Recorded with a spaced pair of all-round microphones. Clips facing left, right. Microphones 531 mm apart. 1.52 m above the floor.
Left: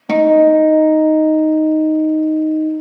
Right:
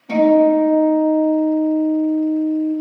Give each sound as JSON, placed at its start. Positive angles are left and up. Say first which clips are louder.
{"t": 0.1, "sound": "a guitar", "louder": "left 2 dB", "side_deg": 80, "distance_m": 0.8}